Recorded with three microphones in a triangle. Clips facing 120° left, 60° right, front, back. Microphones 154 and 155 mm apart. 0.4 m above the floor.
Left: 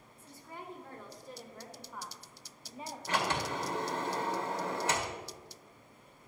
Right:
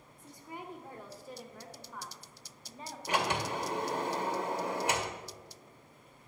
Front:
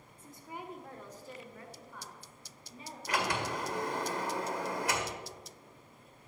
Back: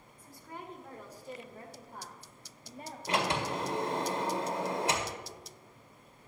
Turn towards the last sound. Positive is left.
turn(degrees=-130)